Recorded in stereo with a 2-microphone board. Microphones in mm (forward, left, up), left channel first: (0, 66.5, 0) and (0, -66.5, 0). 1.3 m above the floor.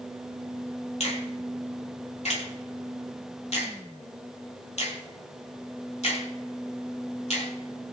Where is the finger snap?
55° left (ahead or behind), 3 m.